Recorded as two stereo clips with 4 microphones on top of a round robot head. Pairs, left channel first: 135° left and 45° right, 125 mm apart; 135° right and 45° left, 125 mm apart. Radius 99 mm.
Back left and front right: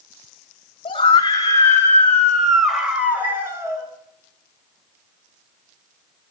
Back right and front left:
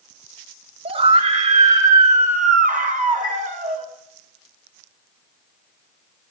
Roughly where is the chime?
Ahead.